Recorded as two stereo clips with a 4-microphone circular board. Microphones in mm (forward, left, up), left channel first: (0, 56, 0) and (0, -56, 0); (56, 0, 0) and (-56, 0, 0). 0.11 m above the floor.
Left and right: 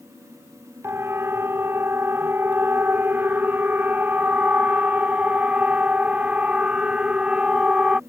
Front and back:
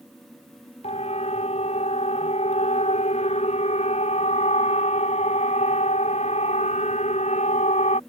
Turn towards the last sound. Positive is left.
turn(degrees=-10)